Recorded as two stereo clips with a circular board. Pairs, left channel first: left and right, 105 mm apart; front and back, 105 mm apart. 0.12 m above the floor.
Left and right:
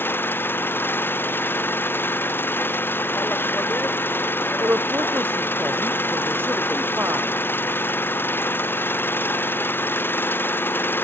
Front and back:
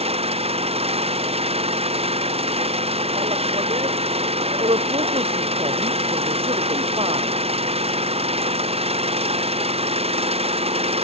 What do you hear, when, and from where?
0.0 s an engine running: 160° left
4.6 s a woman speaking: 160° right